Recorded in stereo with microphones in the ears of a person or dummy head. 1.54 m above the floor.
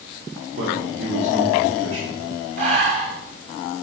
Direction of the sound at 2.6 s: 45° right (ahead or behind).